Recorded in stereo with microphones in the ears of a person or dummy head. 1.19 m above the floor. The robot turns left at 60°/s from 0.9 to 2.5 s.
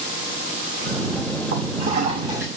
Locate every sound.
1.5 s a toilet flushing: 115° right, 2 m; by 2.5 s 170° right, 2 m